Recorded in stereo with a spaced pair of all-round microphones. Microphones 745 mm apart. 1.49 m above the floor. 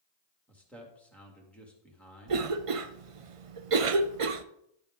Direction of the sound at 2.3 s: 50° right (ahead or behind).